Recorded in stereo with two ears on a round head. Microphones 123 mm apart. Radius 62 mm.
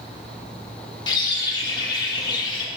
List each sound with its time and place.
1.1 s a bird: 30° left (ahead or behind), 1.0 m